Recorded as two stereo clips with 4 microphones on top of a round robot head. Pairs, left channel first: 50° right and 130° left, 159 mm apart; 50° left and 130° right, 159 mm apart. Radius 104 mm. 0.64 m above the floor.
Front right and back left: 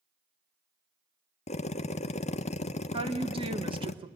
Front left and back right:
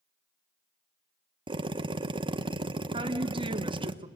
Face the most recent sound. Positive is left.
turn(degrees=180)